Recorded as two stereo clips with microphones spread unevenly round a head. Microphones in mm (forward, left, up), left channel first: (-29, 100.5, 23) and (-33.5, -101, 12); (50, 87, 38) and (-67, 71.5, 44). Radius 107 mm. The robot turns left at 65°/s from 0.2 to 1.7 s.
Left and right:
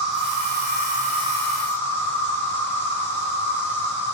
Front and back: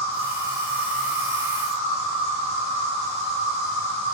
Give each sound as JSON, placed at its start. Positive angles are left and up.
{"t": 0.0, "sound": "an insect", "azimuth_deg": -95, "distance_m": 1.1}